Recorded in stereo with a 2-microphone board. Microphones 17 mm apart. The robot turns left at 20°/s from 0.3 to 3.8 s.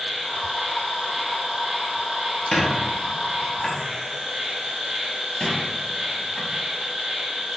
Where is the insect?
10° right, 0.8 m; by 7.6 s 80° right, 0.8 m.